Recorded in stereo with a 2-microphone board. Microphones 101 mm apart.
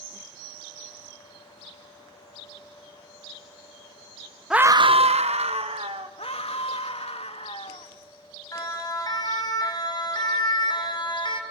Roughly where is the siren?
Left.